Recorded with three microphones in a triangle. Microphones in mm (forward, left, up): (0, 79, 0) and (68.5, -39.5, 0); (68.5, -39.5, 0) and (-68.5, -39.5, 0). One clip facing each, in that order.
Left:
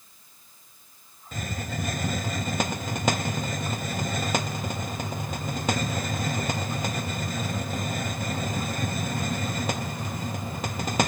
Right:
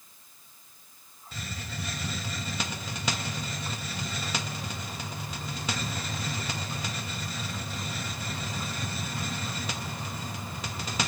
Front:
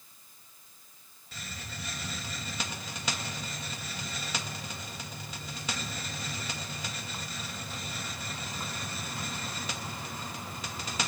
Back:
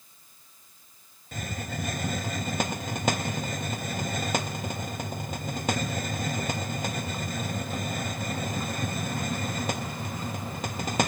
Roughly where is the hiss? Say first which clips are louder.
Left 7 dB, back 10 dB; behind left.